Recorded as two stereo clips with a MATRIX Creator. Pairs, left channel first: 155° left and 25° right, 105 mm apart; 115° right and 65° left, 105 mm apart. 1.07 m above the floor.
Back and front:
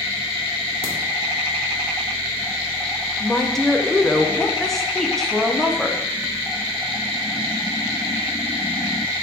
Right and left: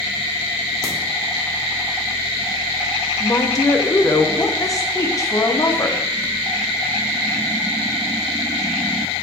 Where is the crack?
175° right, 2 m.